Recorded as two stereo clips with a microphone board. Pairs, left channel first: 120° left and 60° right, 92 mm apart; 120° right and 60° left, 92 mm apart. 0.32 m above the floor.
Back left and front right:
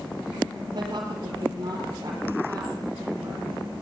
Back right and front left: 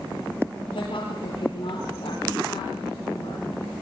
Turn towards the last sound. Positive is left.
turn(degrees=-115)